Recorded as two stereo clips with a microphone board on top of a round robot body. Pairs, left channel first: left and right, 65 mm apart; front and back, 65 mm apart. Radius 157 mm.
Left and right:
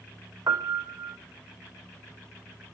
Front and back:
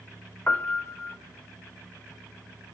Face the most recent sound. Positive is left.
turn(degrees=-60)